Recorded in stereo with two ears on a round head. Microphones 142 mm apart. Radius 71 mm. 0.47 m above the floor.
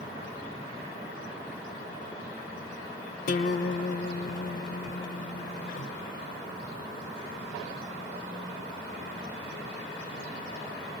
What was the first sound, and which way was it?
A guitar, 50° left (ahead or behind).